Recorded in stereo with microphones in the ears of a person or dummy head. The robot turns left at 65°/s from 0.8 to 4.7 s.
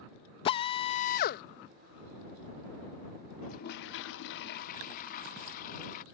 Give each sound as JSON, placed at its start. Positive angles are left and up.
{"t": 0.5, "sound": "a drill", "azimuth_deg": 145}
{"t": 3.4, "sound": "a toilet flushing", "azimuth_deg": 140}